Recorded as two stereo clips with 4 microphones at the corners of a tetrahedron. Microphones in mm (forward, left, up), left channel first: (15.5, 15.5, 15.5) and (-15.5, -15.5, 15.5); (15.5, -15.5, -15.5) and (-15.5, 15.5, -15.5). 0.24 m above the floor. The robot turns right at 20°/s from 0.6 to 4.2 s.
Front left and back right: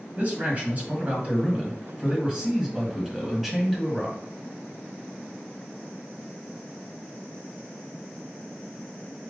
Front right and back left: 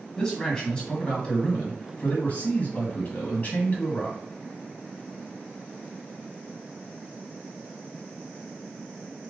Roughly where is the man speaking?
Right.